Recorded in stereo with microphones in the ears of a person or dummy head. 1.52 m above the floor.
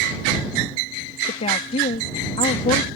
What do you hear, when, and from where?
1.3 s a woman speaking: 40° left (ahead or behind)